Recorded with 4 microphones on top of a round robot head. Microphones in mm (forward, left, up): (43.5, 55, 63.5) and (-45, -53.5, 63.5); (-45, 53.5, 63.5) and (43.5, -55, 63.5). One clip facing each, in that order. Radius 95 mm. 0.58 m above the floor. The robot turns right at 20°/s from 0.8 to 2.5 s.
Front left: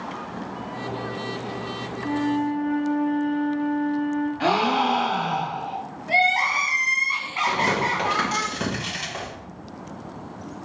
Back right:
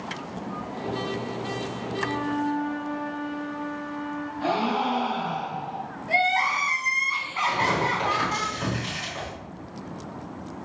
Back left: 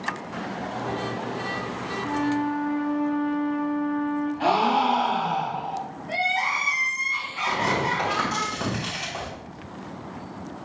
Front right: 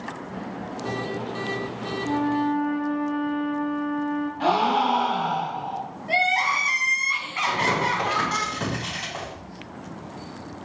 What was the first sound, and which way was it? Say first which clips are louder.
A flute: front left 5 dB, front right 2 dB; 10° left.